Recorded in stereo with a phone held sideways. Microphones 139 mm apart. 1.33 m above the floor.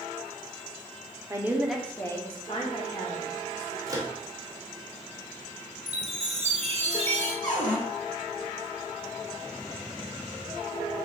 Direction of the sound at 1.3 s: 20° right (ahead or behind).